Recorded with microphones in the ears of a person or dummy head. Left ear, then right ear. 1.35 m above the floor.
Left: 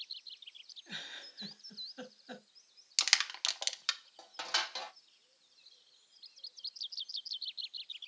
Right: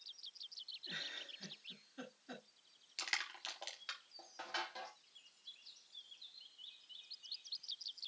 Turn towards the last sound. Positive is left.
turn(degrees=45)  # may be behind; listen again after turning